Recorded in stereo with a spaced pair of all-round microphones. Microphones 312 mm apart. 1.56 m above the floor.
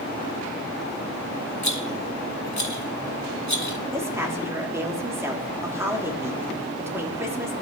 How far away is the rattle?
About 2.5 m.